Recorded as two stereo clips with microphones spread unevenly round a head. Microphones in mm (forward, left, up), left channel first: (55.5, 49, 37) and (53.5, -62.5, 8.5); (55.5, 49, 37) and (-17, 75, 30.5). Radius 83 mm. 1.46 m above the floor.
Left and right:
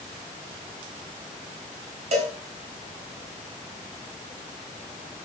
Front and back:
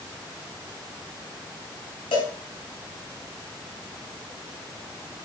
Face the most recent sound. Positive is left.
turn(degrees=-60)